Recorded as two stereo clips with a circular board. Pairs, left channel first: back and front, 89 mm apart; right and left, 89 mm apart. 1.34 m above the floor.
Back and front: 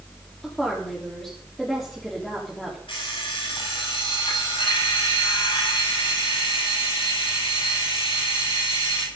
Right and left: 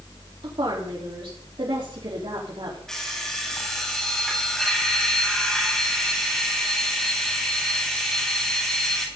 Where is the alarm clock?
175° right, 6 m.